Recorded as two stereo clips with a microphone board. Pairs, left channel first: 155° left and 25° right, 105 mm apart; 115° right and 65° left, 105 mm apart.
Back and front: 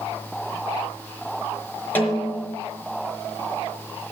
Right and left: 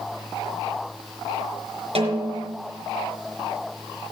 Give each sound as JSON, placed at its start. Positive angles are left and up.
{"t": 1.9, "sound": "a snare drum", "azimuth_deg": 85, "distance_m": 4.5}